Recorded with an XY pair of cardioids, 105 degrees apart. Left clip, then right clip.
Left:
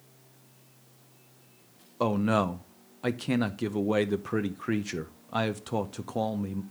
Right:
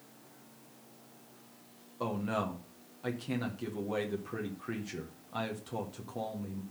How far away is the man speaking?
About 0.8 m.